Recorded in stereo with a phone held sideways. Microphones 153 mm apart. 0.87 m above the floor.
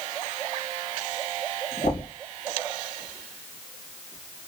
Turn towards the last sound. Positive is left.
turn(degrees=85)